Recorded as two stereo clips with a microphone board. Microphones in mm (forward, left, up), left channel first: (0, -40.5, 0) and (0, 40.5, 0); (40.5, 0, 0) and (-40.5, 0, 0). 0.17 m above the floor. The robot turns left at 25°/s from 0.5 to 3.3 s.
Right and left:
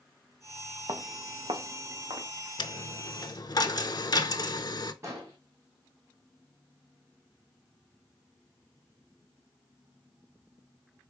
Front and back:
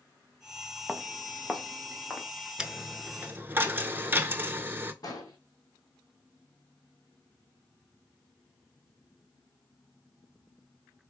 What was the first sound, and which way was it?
Footsteps, 100° left.